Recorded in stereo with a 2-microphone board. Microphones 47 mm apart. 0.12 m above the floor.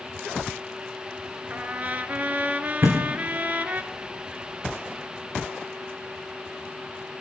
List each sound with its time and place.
1.5 s a trumpet: 35° right (ahead or behind), 0.8 m
2.8 s a thud: 55° right (ahead or behind), 3.5 m